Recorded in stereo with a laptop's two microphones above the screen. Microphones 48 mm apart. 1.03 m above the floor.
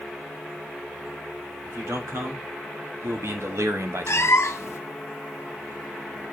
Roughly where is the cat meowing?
Left.